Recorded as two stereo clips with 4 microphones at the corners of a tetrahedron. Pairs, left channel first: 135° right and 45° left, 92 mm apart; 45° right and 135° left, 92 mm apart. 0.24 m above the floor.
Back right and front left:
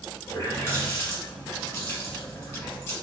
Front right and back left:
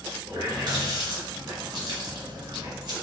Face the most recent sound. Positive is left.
turn(degrees=160)